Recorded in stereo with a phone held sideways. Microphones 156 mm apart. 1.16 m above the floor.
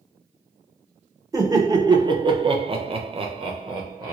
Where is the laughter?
25° right (ahead or behind), 1.1 m.